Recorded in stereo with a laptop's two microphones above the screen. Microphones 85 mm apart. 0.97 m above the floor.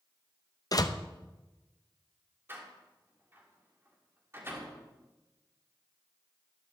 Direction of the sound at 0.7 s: 45° left (ahead or behind).